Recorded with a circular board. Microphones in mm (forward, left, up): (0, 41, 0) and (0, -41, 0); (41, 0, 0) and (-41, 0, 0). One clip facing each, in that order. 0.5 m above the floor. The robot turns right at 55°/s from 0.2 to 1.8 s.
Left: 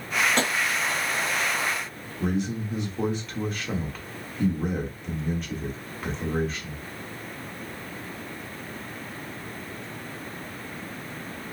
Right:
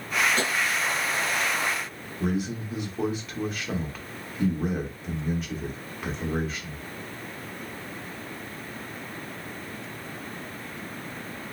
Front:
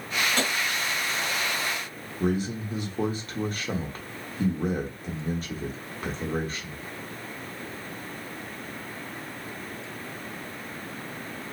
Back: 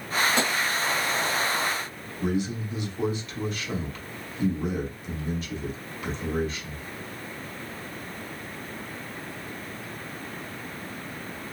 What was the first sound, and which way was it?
Tapping, 105° left.